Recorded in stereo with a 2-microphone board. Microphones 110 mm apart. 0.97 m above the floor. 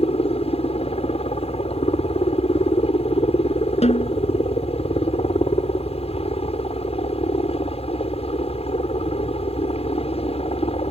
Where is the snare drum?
75° left (ahead or behind).